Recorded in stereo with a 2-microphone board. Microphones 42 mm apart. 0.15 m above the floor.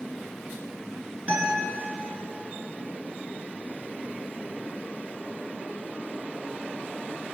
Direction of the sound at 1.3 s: 30° right (ahead or behind).